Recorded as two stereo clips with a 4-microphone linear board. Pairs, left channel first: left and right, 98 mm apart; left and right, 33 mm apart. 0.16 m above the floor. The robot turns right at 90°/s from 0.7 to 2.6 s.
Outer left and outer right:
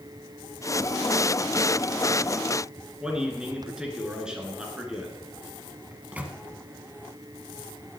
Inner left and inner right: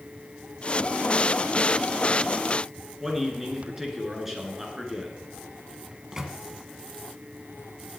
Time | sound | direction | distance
3.0 | a man speaking | 10° right (ahead or behind) | 2.5 m
5.9 | a microwave | 15° right (ahead or behind) | 1.3 m